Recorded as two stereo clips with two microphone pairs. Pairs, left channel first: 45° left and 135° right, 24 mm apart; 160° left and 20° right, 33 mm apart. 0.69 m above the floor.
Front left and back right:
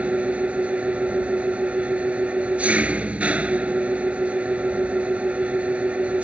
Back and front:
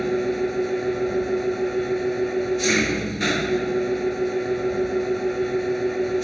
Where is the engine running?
115° right.